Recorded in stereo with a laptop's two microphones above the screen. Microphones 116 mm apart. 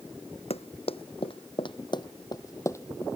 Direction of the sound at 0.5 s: 60° left (ahead or behind).